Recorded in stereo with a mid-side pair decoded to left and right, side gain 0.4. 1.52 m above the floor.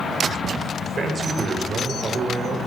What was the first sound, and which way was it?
A man speaking, 45° right.